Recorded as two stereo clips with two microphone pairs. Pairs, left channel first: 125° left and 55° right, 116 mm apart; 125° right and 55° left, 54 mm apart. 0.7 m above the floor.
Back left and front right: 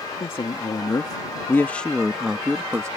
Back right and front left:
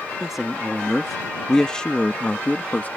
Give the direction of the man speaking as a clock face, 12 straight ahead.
8 o'clock.